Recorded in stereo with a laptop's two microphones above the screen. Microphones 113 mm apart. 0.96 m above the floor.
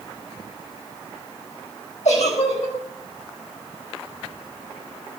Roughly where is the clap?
No clap in this recording.